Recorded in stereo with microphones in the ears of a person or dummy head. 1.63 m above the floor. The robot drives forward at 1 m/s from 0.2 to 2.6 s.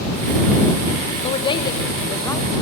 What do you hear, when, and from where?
1.2 s a woman speaking: 35° left (ahead or behind), 1.4 m; by 2.5 s 20° left (ahead or behind), 2.5 m